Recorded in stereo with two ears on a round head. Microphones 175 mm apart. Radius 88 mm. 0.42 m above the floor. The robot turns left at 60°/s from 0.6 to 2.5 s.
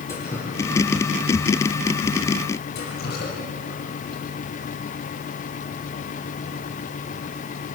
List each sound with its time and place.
0.1 s dripping: 15° left (ahead or behind), 6.5 m; by 4.2 s 50° left (ahead or behind), 6.5 m